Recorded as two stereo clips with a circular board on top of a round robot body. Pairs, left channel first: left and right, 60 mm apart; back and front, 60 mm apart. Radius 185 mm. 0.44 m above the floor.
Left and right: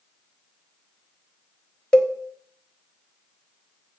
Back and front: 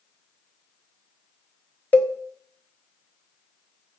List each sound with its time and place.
1.9 s a cowbell: 145° left, 1.4 m